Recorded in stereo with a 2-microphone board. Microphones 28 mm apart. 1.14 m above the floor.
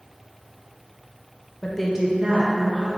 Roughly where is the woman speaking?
Left.